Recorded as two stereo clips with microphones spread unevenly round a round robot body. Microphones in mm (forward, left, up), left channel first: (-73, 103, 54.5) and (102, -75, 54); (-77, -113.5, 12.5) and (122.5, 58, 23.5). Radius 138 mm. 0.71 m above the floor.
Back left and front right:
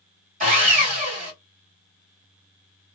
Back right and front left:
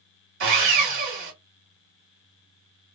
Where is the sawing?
5° left, 1.7 m.